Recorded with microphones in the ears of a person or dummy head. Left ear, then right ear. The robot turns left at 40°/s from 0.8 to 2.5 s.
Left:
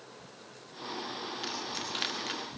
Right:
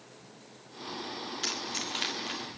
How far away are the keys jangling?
About 1.6 m.